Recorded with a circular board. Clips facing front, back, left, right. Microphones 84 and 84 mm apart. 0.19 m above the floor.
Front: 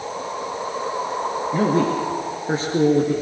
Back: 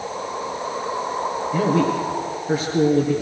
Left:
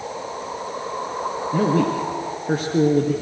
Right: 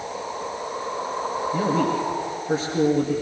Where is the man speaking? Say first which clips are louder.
Even, left 3 dB; 55° left, 4 m.